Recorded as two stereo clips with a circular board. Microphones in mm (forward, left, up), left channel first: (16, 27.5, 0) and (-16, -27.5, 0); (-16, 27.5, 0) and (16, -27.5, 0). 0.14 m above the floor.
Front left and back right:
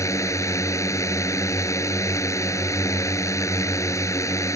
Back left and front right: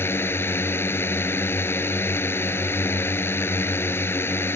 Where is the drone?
80° left.